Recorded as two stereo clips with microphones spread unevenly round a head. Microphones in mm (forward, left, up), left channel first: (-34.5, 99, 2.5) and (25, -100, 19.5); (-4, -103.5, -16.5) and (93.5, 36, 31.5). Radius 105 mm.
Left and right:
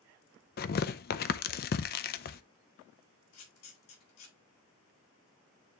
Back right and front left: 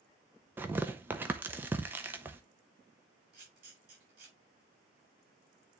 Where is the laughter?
I don't hear laughter.